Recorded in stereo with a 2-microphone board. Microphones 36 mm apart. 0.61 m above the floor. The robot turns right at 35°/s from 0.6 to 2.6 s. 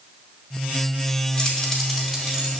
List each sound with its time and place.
1.4 s keys jangling: 25° left (ahead or behind), 2.5 m; by 2.6 s 20° right (ahead or behind), 2.5 m